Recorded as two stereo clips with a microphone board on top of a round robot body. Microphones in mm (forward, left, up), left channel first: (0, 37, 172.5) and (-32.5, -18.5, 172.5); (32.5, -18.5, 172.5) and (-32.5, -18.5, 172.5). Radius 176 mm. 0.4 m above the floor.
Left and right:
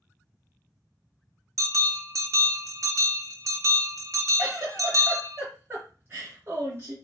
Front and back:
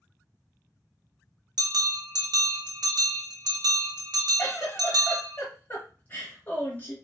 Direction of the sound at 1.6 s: 165° right.